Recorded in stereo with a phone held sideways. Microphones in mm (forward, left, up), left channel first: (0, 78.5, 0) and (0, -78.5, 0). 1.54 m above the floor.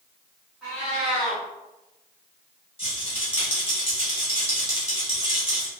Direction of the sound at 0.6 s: 5° right (ahead or behind).